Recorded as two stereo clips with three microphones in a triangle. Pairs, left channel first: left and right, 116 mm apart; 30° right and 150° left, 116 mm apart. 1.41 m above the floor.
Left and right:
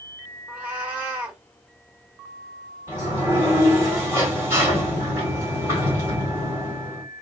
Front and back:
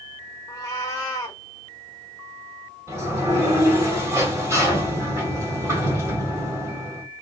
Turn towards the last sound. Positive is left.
turn(degrees=-155)